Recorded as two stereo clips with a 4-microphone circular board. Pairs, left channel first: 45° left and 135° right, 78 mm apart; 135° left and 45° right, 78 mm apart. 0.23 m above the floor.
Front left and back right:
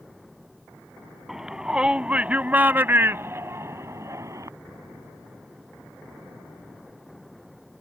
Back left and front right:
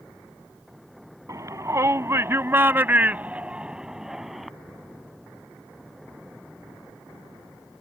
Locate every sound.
1.3 s a shout: 55° right; by 4.5 s 135° right